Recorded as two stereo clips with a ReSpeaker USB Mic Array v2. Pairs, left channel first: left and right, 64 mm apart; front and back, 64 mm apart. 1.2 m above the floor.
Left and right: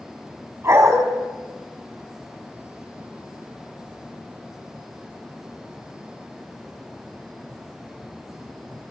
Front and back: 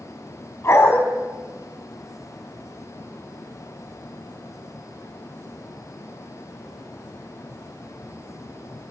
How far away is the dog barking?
About 4.5 m.